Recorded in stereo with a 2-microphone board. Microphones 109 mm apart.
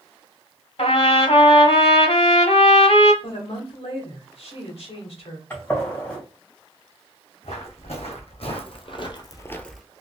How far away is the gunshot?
About 2.5 m.